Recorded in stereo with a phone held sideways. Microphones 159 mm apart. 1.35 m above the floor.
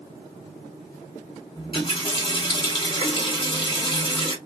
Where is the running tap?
35° left (ahead or behind), 1.5 m.